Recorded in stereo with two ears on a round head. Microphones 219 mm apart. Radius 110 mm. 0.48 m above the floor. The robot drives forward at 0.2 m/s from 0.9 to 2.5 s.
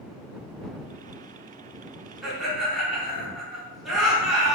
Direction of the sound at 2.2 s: Centre (ahead or behind).